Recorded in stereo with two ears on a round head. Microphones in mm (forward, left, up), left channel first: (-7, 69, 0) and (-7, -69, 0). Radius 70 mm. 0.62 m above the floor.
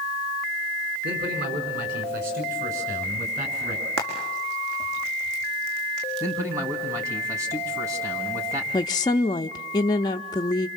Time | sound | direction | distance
1.0 | a man speaking | 70° right (ahead or behind) | 7 m
4.0 | frying | 85° right | 5.5 m
6.2 | a man speaking | 20° right (ahead or behind) | 4.5 m
8.7 | a woman speaking | 30° left (ahead or behind) | 0.6 m